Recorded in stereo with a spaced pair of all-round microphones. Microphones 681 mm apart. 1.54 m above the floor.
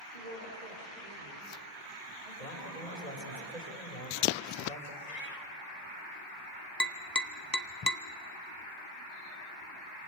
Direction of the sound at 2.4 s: 75° left (ahead or behind).